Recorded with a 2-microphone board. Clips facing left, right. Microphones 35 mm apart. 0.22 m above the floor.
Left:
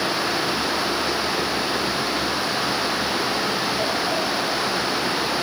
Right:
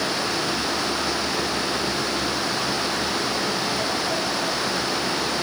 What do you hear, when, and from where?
Only background noise.